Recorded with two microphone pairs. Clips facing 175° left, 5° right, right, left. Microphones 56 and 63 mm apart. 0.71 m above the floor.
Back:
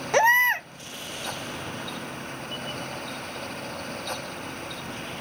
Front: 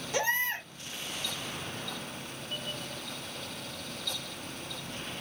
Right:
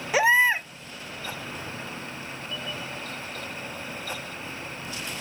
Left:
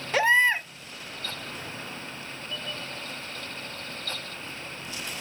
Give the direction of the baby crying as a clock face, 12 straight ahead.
6 o'clock.